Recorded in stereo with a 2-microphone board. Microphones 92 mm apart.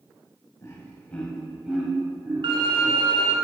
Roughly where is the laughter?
Left.